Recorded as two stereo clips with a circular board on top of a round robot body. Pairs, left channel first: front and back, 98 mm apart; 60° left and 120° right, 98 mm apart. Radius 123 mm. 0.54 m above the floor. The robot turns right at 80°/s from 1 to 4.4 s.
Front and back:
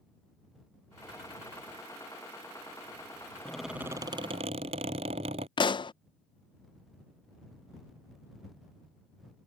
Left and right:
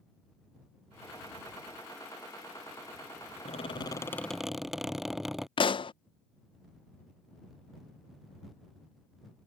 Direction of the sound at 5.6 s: 35° left.